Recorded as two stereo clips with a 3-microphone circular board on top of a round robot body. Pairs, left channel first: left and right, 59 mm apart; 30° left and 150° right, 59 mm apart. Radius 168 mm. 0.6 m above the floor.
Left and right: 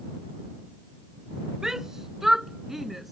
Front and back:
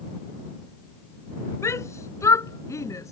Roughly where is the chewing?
I don't hear chewing.